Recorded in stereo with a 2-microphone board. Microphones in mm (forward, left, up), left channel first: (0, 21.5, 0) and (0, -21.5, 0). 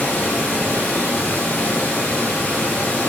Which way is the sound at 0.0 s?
70° left (ahead or behind).